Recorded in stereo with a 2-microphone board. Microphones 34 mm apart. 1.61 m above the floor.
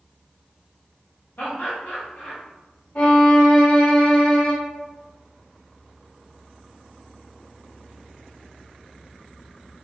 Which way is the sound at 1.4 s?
60° left (ahead or behind).